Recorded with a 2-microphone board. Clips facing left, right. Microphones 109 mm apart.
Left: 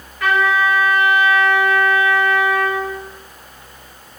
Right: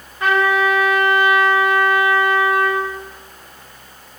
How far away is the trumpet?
About 3.5 m.